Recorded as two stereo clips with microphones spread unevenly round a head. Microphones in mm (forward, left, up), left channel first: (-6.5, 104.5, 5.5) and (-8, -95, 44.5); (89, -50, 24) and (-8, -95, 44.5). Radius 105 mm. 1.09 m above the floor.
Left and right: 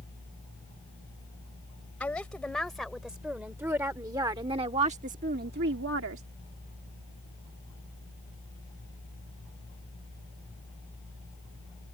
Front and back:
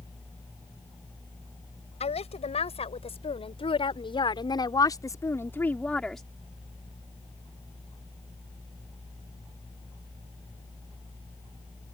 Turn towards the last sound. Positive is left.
turn(degrees=-65)